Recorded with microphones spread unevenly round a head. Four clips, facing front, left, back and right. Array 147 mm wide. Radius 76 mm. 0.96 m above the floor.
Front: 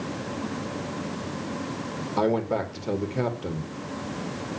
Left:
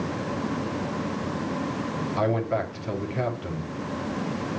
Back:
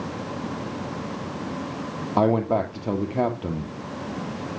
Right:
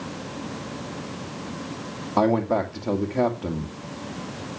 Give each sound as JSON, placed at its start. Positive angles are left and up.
{"t": 2.2, "sound": "a man speaking", "azimuth_deg": -140, "distance_m": 2.0}